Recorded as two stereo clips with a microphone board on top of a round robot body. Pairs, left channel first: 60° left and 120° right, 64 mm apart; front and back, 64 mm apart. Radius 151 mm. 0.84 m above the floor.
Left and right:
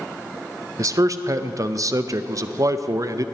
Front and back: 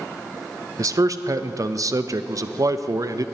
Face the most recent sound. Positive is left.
turn(degrees=-150)